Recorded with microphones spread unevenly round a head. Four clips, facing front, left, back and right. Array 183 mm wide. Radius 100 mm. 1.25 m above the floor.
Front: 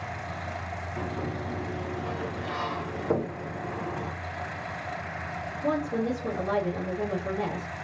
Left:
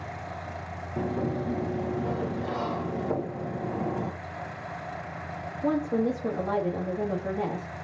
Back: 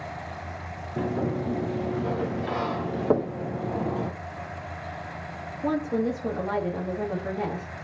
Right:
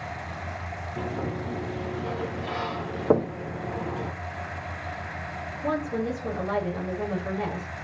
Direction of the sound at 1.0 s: 155° left.